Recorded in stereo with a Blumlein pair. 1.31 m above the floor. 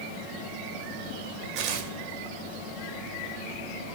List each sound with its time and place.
1.6 s tearing paper: 40° right, 3 m